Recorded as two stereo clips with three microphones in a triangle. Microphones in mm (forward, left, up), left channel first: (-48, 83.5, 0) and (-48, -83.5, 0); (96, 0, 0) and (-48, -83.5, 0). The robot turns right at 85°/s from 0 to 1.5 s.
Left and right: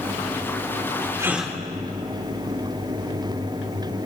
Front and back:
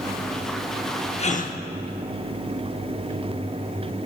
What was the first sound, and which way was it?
A gasp, 20° right.